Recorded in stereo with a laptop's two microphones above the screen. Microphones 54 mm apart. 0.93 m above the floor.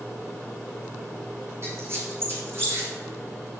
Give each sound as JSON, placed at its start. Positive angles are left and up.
{"t": 1.6, "sound": "a squeak", "side_deg": -45, "distance_m": 2.5}